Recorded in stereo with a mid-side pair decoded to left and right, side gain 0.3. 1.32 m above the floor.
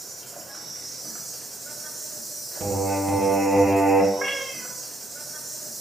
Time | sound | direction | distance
0.0 | an insect | 65° right | 2.5 m
2.6 | singing | 60° right | 1.7 m
4.1 | a cat meowing | 45° right | 2.0 m